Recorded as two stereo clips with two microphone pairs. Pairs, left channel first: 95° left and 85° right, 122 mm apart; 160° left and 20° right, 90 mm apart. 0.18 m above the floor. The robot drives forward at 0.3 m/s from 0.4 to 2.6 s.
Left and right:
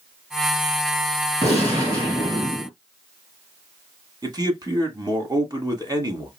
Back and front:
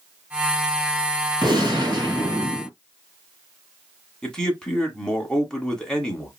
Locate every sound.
1.4 s a gunshot: 35° right, 2.5 m; by 2.7 s 45° right, 2 m
4.2 s a man speaking: 120° right, 1.2 m